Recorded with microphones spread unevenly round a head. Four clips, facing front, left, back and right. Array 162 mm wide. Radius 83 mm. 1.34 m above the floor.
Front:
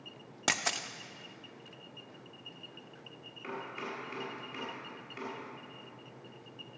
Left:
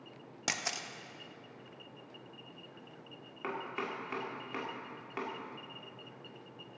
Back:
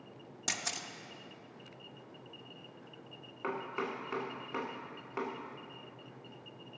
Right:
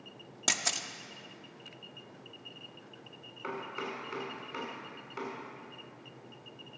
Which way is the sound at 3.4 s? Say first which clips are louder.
Even, back 4 dB; 155° left.